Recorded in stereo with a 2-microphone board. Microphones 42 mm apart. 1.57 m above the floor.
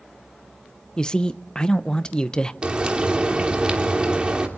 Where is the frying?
25° right (ahead or behind), 2.5 m.